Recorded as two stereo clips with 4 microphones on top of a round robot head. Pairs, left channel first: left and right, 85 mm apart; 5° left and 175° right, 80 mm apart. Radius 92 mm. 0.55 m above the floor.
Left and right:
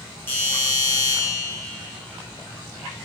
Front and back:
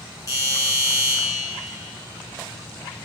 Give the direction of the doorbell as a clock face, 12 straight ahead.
11 o'clock.